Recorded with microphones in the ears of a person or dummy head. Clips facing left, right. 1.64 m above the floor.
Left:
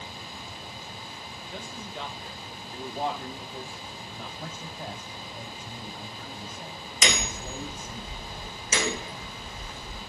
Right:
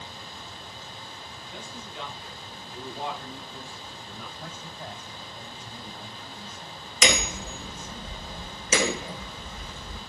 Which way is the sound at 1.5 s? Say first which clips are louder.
Left 2 dB; 45° left (ahead or behind).